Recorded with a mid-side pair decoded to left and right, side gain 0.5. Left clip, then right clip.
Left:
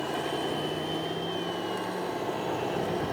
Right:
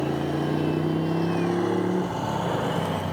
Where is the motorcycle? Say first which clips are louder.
Right 3 dB; 70° right.